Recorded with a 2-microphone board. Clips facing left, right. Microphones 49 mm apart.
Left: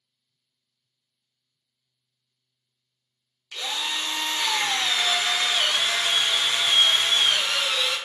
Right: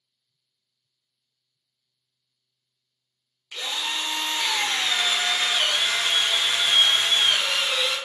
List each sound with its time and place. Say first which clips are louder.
3.5 s a drill: even; 10° right (ahead or behind), 0.7 m